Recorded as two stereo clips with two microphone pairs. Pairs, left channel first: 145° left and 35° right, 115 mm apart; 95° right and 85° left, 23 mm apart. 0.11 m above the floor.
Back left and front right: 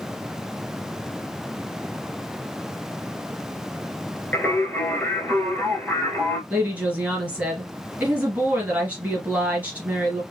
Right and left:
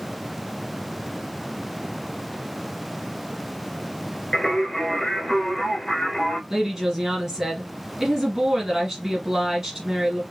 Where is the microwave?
I don't hear a microwave.